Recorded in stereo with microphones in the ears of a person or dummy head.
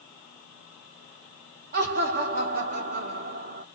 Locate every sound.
1.7 s laughter: 55° right (ahead or behind), 0.8 m